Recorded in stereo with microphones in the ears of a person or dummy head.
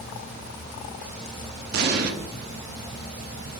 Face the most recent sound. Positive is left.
turn(degrees=-60)  # may be behind; listen again after turning